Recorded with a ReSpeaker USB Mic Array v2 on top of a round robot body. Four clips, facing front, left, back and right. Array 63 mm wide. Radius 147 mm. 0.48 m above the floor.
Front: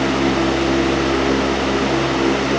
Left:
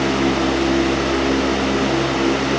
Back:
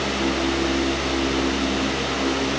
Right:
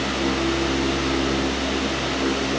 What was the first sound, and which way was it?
Only background noise.